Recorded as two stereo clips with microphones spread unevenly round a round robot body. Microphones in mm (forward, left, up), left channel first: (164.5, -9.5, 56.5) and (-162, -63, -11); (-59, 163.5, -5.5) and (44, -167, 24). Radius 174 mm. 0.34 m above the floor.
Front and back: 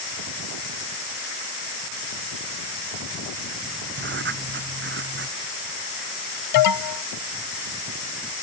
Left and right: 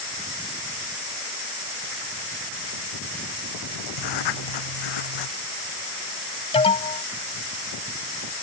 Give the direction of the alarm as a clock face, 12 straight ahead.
11 o'clock.